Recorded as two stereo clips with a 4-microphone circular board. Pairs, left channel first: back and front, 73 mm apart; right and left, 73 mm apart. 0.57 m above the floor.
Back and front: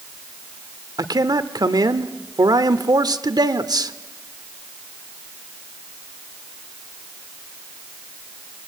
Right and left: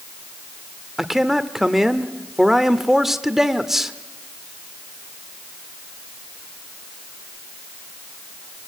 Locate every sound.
1.0 s a man speaking: 5° left, 1.3 m